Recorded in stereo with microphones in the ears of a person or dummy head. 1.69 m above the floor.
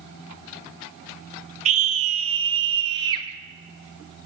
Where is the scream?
40° right (ahead or behind), 3.5 m; by 3.3 s 25° right (ahead or behind), 4.5 m.